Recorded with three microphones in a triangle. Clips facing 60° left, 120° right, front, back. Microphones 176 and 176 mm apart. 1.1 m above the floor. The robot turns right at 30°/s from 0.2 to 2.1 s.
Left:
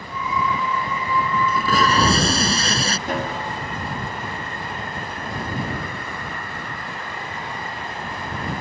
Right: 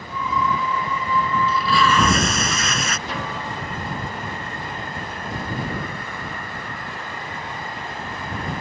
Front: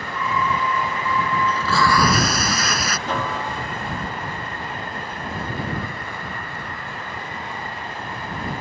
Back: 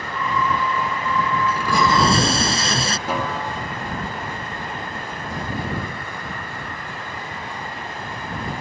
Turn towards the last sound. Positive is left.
turn(degrees=100)